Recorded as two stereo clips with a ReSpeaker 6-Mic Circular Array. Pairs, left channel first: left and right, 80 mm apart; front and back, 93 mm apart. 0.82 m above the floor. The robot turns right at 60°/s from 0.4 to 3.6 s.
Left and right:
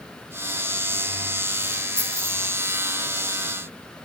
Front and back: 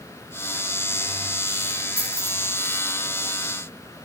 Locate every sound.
2.0 s keys jangling: 150° right, 7 m; by 2.3 s 130° right, 7 m